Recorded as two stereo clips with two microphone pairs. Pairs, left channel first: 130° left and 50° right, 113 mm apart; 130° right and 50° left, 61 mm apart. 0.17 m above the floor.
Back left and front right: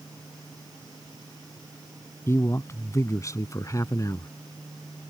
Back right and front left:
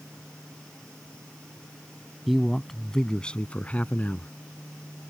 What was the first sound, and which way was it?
A man speaking, 135° left.